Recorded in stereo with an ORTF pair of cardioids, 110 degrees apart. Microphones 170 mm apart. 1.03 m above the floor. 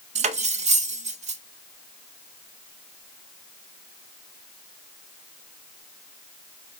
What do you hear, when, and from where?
0.1 s cutlery clinking: 40° right, 0.6 m